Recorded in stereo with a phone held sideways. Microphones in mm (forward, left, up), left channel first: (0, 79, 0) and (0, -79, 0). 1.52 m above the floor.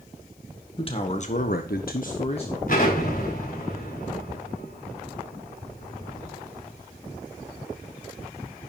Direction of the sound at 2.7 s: 60° left (ahead or behind).